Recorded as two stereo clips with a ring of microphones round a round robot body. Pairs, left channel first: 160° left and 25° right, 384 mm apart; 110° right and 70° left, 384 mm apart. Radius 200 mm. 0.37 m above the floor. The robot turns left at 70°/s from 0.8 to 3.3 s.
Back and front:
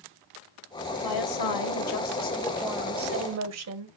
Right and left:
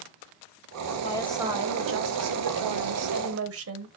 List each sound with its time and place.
1.0 s a woman speaking: straight behind, 2 m; by 3.9 s 20° left, 2 m